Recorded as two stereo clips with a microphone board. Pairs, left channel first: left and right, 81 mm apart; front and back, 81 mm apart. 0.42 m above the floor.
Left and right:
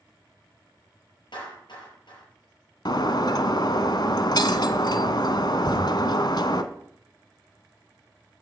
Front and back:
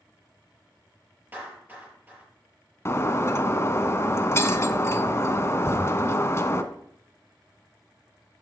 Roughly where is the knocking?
Ahead left.